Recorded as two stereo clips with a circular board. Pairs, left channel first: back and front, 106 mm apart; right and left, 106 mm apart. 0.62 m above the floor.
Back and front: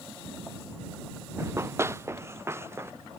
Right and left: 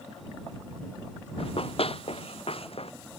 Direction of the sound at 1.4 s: 65° right.